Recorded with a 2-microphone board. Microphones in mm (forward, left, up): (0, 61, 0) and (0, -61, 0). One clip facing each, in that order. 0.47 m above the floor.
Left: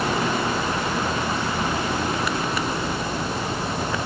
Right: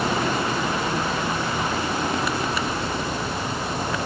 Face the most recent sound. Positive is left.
No sound to turn to.